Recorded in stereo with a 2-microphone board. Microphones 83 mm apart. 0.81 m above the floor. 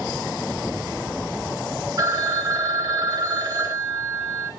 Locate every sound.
2.0 s a phone ringing: 40° right (ahead or behind), 1.4 m